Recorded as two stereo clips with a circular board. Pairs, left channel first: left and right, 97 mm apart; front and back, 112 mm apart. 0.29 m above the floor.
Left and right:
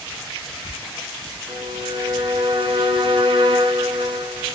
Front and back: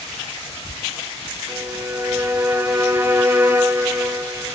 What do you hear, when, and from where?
1.5 s a violin: 115° right, 1.3 m